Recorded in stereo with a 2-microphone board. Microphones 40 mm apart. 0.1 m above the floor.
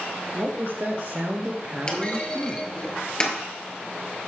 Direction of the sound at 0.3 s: 60° right (ahead or behind).